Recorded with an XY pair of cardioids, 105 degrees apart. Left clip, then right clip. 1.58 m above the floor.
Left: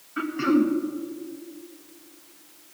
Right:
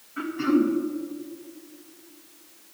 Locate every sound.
0.2 s throat clearing: 35° left, 1.8 m